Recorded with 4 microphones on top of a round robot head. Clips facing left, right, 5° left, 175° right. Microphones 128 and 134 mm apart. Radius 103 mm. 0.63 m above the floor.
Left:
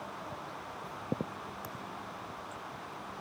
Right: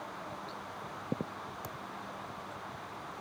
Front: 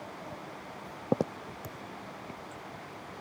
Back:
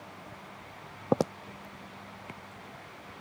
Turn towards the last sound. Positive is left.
turn(degrees=-20)